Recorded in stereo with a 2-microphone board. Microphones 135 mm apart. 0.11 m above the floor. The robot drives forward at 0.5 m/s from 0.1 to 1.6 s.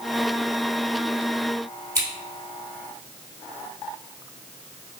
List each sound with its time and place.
1.9 s scissors: 15° left (ahead or behind), 1.8 m